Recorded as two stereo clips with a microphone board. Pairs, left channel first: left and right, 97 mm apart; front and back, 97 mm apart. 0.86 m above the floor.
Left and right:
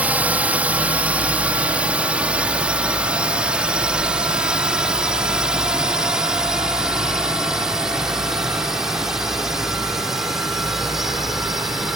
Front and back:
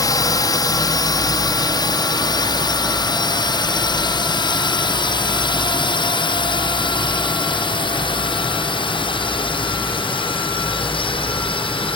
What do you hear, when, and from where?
0.0 s a drone: 20° right; by 12.0 s straight ahead